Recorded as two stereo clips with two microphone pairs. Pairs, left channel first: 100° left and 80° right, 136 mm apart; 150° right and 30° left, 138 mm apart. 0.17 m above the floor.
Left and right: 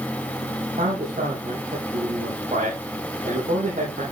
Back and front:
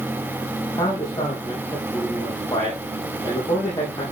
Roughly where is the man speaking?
Right.